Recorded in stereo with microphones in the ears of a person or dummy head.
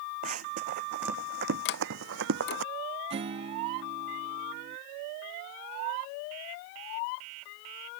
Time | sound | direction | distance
0.2 | running footsteps | 50° right (ahead or behind) | ?
1.6 | a sliding door | 55° left (ahead or behind) | ?
3.1 | a guitar | 40° right (ahead or behind) | ?